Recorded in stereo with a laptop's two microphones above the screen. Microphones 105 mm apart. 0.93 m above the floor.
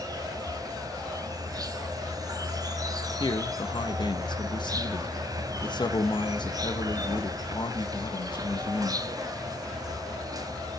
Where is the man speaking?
45° left (ahead or behind), 0.9 m.